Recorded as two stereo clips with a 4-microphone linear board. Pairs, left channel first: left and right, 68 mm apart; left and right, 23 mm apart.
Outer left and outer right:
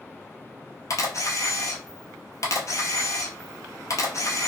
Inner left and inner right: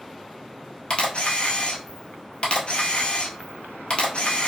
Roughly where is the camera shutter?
Left.